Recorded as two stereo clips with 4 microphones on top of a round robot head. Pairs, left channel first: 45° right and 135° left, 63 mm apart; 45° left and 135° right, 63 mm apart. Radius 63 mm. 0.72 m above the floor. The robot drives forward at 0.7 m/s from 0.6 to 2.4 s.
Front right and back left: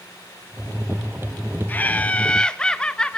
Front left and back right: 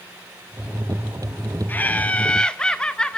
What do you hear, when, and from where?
1.7 s laughter: straight ahead, 1.3 m